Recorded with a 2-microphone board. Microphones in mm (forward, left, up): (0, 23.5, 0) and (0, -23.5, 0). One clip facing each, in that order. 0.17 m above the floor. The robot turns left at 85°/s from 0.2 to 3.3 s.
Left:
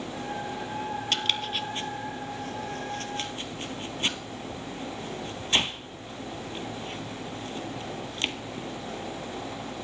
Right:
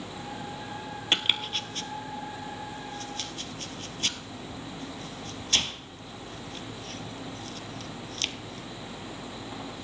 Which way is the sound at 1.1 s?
30° right (ahead or behind).